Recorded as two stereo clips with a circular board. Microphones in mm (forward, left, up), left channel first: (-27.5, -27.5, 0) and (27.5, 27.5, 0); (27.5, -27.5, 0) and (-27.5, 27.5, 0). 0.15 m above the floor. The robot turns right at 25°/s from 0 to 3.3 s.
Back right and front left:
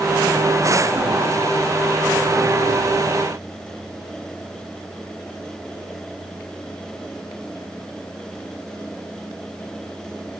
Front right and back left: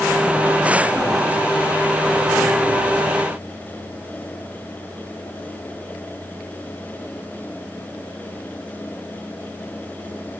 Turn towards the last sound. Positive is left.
No sound to turn to.